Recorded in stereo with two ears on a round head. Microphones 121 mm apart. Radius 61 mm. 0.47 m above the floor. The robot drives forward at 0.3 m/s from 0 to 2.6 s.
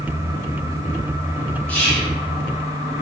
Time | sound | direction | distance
1.7 | whispering | 10° left (ahead or behind) | 0.7 m